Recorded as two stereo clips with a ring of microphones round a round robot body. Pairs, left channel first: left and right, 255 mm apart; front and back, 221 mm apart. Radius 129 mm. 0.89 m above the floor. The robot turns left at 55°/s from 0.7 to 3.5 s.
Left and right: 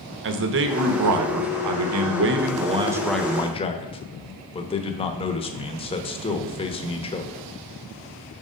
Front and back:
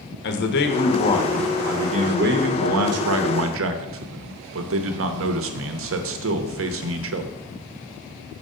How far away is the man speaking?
About 0.8 m.